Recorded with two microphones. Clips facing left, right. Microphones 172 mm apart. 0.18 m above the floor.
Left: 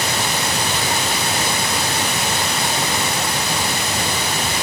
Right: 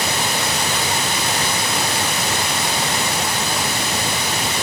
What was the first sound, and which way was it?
Only background noise.